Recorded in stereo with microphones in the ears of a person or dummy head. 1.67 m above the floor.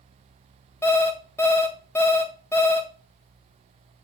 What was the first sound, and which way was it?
An alarm clock, 15° left (ahead or behind).